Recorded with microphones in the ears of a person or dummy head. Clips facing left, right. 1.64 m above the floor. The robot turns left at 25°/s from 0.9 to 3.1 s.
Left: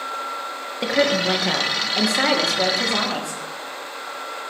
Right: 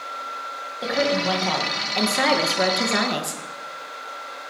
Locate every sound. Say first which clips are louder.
0.8 s a woman speaking: left 2 dB; 30° left, 1.9 m; by 3.4 s 25° right, 1.9 m